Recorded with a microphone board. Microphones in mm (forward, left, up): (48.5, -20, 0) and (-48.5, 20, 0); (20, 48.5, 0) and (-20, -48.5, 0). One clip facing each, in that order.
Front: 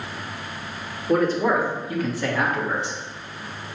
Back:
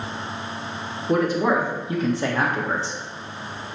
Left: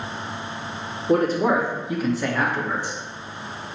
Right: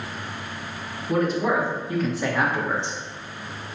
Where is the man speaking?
80° left, 1.1 m; by 3.0 s 160° right, 1.1 m.